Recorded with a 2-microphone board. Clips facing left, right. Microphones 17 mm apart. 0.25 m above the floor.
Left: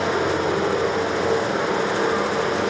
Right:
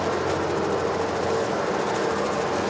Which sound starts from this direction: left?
Running water, at 0.0 s.